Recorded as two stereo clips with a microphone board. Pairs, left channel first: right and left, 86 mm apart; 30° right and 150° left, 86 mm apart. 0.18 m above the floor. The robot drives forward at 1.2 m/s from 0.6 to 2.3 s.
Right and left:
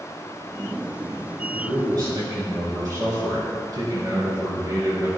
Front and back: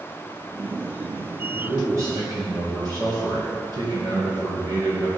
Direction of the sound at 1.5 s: 100° left.